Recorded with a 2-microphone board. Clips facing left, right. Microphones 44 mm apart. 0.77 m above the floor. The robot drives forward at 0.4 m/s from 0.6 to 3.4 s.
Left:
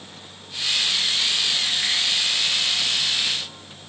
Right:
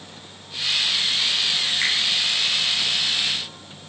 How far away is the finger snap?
About 7 m.